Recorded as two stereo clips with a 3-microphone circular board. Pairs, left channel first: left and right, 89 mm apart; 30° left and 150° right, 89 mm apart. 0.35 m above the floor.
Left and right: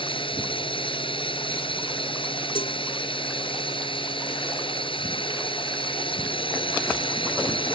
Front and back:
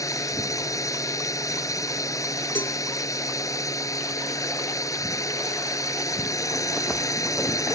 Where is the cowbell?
100° left.